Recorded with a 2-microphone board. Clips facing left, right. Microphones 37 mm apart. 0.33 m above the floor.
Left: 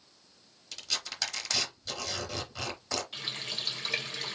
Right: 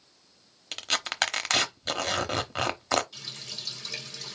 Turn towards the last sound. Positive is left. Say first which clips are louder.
# left 4 dB
turn(degrees=35)  # may be behind; listen again after turning